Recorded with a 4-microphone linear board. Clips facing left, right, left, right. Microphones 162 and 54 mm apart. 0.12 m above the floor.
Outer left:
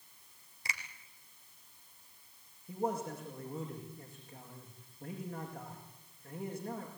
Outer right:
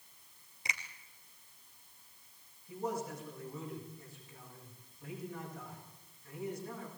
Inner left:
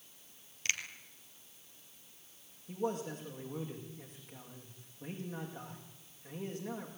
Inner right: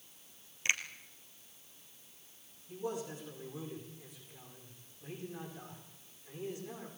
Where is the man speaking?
55° left (ahead or behind), 7.5 m.